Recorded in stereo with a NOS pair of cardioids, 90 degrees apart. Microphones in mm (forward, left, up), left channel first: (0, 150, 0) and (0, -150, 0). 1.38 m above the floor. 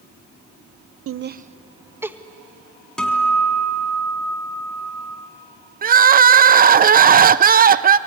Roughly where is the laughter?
Ahead right.